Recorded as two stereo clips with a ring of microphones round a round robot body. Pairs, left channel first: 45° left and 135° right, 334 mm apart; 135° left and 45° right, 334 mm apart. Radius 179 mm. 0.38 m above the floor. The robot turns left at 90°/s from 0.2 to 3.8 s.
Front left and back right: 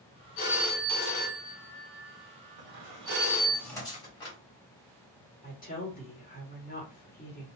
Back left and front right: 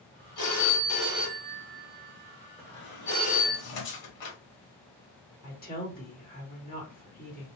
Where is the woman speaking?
90° left, 1.6 m.